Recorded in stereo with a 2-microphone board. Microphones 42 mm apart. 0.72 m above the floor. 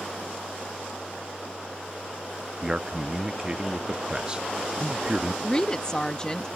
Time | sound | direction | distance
2.6 | a man speaking | 20° right (ahead or behind) | ?
5.4 | a woman speaking | 20° left (ahead or behind) | ?